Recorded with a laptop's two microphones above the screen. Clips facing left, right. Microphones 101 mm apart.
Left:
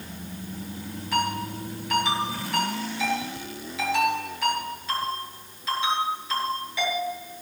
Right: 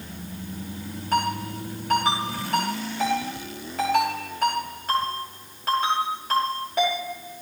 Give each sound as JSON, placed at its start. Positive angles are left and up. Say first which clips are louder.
{"t": 1.1, "sound": "a ringtone", "louder": "right 2 dB", "side_deg": -50, "distance_m": 5.5}